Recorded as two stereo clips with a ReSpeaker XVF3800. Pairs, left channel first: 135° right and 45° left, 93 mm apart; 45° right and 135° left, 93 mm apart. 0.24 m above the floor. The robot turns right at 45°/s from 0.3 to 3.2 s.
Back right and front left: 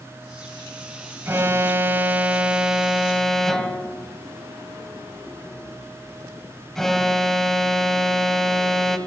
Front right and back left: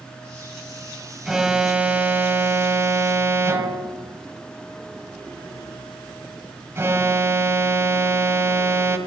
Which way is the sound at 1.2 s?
55° left.